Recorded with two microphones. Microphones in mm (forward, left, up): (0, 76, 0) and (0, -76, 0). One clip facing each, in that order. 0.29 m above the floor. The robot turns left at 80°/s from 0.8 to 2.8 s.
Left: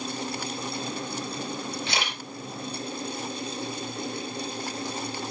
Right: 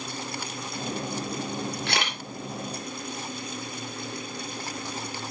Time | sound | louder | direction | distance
1.9 | a camera shutter | right 1 dB | 55° right (ahead or behind) | 3 m